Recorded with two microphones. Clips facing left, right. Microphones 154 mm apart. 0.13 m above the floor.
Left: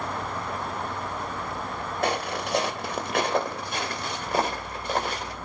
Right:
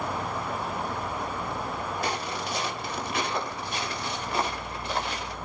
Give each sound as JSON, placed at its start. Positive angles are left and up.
{"t": 2.0, "sound": "footsteps", "side_deg": 60, "distance_m": 3.0}